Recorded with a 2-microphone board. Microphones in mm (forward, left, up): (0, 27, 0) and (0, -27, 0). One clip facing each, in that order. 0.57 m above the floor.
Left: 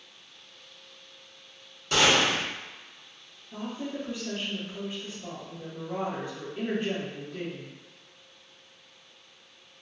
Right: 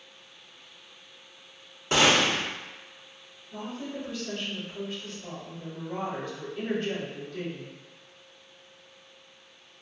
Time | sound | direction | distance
1.9 | a gunshot | 30° right (ahead or behind) | 1.0 m
3.5 | a woman speaking | 25° left (ahead or behind) | 1.1 m